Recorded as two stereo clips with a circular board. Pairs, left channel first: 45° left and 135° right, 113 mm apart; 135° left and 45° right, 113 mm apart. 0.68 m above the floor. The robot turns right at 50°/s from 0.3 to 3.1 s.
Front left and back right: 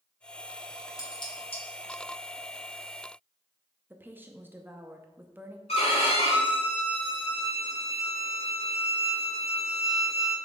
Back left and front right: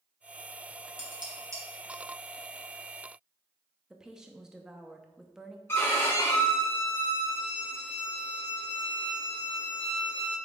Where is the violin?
65° left, 1.8 m.